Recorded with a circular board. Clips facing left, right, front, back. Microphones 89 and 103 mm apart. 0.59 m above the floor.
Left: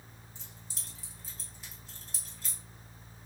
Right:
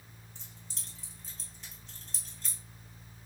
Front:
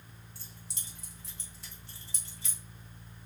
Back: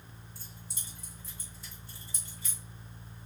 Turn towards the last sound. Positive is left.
turn(degrees=5)